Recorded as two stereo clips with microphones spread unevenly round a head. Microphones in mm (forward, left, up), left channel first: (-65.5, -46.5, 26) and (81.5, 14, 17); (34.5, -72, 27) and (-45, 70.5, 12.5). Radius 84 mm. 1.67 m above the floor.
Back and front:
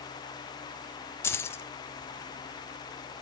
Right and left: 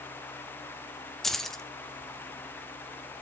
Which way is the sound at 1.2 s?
130° right.